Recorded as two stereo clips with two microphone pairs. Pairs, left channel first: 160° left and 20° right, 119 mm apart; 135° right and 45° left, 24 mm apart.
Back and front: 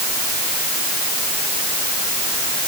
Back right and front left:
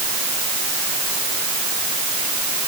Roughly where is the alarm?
I don't hear an alarm.